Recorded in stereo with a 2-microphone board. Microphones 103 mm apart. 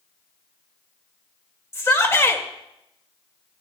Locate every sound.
1.7 s a shout: 25° left (ahead or behind), 1.7 m